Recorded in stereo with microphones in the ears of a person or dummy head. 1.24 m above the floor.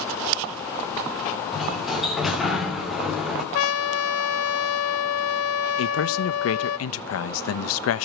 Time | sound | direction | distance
1.5 | a sliding door | 5° left (ahead or behind) | 2.5 m
3.5 | a trumpet | 80° left | 0.9 m
5.8 | a man speaking | 85° left | 0.9 m